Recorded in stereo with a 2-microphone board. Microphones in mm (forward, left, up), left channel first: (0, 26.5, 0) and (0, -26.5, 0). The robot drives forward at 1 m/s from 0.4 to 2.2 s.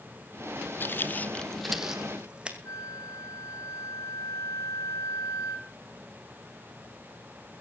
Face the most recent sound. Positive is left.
turn(degrees=75)  # may be behind; listen again after turning